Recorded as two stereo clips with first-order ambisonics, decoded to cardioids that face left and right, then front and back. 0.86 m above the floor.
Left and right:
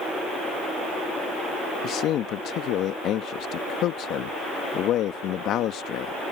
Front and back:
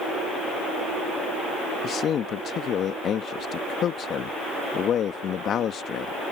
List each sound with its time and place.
1.8 s a man speaking: 50° left